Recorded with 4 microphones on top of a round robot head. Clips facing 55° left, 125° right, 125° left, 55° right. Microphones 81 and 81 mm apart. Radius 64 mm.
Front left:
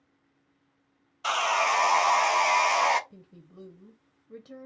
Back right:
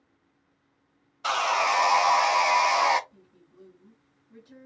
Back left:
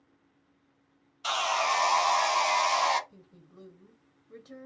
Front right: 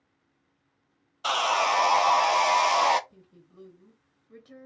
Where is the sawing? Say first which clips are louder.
Back right 1 dB, front right 4 dB; 45° right, 0.6 m.